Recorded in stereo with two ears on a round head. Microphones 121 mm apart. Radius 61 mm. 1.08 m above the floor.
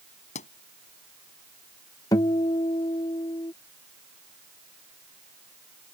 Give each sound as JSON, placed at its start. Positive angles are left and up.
{"t": 0.3, "sound": "a pop", "side_deg": 60}
{"t": 2.1, "sound": "a guitar", "side_deg": 25}